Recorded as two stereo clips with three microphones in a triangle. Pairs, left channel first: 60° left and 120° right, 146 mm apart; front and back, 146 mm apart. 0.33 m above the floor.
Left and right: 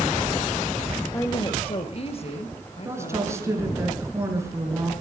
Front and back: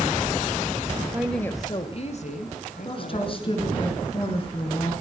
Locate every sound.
1.1 s a woman speaking: 115° left, 1.0 m; by 3.9 s 10° left, 4 m
2.9 s a woman speaking: 50° right, 4.5 m